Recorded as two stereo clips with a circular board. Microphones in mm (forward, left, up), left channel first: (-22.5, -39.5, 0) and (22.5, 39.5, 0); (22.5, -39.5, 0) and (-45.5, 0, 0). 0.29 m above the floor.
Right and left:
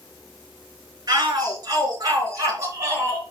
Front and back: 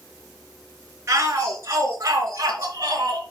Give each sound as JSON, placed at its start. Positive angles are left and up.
{"t": 1.1, "sound": "a shout", "azimuth_deg": 105, "distance_m": 4.5}